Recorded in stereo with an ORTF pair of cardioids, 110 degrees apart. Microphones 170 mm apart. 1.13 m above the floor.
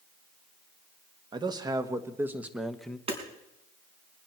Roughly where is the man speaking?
Ahead right.